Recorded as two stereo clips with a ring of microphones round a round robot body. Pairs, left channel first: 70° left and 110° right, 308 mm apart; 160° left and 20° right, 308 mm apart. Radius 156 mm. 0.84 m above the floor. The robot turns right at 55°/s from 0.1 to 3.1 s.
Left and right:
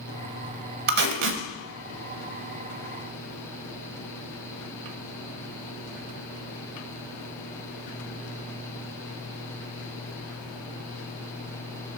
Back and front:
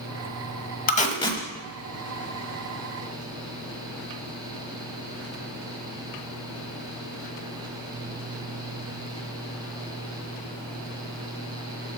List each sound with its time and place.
0.9 s tape being pulled: 155° right, 0.7 m; by 1.4 s 125° right, 0.7 m